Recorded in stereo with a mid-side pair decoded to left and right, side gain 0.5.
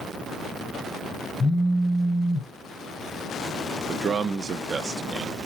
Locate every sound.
1.4 s a phone buzzing: 20° left, 0.7 m
3.9 s a man speaking: 45° right, 0.6 m